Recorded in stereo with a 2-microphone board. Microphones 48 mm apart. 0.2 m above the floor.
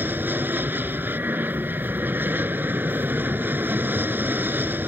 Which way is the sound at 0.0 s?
45° right (ahead or behind).